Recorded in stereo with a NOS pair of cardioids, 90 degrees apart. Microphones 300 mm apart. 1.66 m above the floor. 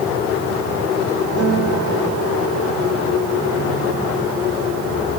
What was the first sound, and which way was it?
A guitar, 65° right.